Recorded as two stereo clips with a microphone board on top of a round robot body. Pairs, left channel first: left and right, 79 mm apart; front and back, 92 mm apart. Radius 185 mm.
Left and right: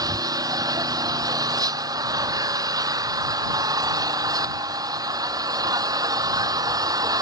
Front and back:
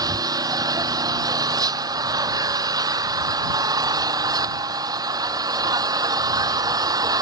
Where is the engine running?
130° right.